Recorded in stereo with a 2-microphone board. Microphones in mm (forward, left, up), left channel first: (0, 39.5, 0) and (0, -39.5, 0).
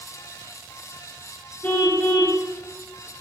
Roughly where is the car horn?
Left.